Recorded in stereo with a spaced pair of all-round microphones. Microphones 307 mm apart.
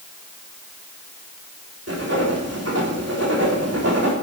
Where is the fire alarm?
I don't hear a fire alarm.